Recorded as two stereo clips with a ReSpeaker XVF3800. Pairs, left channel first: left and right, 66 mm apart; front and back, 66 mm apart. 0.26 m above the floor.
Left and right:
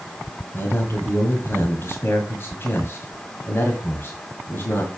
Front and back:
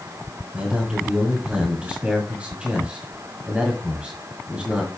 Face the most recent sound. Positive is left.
turn(degrees=115)